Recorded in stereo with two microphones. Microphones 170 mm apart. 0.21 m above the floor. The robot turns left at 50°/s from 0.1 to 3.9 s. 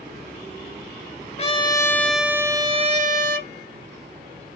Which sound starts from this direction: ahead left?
A trumpet, at 1.4 s.